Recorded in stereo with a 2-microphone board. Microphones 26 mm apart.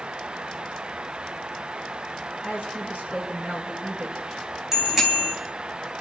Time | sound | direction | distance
2.4 | a woman speaking | 55° right (ahead or behind) | 8.5 m
4.7 | a bicycle bell | 15° right (ahead or behind) | 3 m